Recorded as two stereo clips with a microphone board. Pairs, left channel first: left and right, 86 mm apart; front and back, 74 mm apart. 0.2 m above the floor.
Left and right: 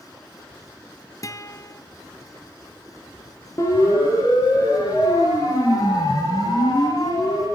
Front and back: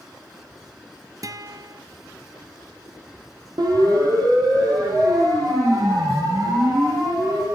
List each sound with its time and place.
1.2 s a guitar: 140° left, 1.3 m
3.6 s a siren: 145° left, 8 m; by 7.5 s 140° left, 12.5 m